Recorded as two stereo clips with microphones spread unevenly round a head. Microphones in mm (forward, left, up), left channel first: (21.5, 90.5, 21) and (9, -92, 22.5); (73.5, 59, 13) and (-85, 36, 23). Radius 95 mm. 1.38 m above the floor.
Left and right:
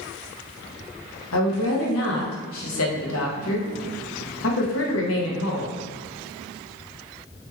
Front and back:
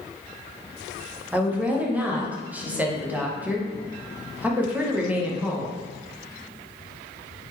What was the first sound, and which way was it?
A woman speaking, 110° left.